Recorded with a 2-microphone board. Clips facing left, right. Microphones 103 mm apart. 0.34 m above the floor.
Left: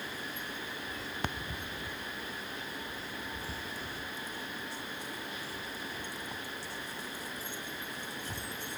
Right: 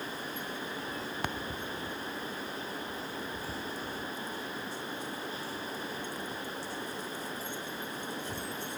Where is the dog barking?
No dog barking in this recording.